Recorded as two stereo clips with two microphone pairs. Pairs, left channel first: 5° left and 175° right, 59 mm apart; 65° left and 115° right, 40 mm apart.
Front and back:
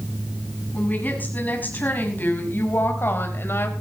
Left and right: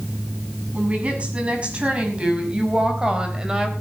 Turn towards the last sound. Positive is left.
turn(degrees=-40)